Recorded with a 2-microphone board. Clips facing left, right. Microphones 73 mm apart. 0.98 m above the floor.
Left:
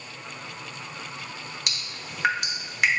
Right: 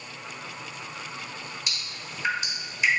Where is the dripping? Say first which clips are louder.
Left 1 dB; 70° left (ahead or behind), 1.2 m.